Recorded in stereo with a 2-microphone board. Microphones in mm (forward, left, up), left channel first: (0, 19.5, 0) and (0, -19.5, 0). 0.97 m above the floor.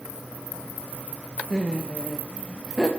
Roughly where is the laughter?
Centre.